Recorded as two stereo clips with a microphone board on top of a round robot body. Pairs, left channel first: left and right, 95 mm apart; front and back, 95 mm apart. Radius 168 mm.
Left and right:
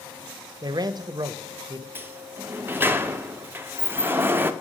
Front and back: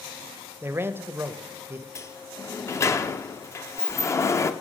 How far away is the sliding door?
About 0.8 m.